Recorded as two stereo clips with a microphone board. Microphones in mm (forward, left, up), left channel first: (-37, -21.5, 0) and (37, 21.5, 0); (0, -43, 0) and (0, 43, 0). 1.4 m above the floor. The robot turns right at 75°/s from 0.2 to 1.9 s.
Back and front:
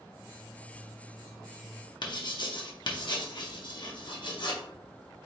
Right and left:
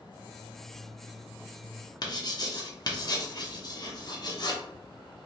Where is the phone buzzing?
I don't hear a phone buzzing.